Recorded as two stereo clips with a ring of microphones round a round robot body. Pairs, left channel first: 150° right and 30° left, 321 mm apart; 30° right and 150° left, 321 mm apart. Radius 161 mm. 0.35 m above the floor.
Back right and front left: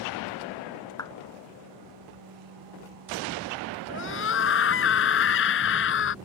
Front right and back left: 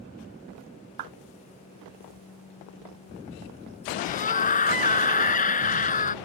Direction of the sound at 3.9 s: 95° right.